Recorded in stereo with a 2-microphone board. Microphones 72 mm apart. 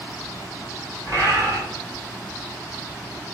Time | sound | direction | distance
1.1 | a bird | 55° right (ahead or behind) | 1.4 m